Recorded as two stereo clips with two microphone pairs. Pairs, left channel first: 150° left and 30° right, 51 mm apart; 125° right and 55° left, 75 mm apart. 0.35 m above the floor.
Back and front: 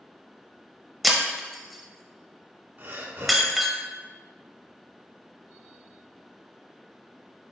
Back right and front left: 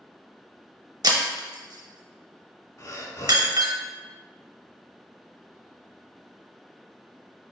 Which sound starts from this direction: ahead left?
Breaking glass, at 1.0 s.